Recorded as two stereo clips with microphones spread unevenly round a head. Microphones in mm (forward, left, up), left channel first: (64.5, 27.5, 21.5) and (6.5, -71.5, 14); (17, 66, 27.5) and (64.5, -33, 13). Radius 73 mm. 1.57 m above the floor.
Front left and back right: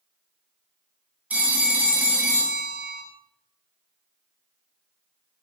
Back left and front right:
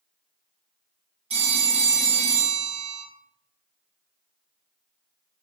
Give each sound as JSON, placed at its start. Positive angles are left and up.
{"t": 1.3, "sound": "a phone ringing", "azimuth_deg": -45, "distance_m": 0.8}